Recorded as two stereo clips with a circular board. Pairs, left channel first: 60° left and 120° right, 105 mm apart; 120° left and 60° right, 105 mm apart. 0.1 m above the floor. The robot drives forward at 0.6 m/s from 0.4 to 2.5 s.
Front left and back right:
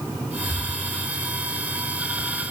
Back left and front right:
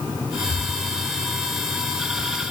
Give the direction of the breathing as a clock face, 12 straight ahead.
7 o'clock.